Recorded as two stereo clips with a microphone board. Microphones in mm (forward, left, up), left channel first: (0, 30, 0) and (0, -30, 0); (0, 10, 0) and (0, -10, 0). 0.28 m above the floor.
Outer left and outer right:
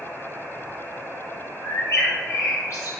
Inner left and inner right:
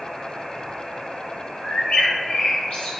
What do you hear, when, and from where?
1.6 s a bird: 60° left (ahead or behind), 1.1 m